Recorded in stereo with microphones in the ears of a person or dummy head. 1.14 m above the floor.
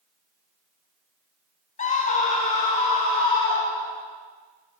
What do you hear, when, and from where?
1.8 s a scream: 35° left (ahead or behind), 1.0 m; by 4.0 s 40° left (ahead or behind), 3 m